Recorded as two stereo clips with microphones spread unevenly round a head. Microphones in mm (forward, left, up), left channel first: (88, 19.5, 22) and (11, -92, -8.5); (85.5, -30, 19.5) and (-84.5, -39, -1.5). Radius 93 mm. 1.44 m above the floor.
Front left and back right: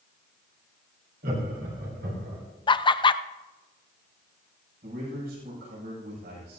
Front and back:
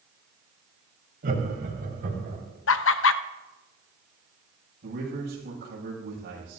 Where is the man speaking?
150° right, 7 m.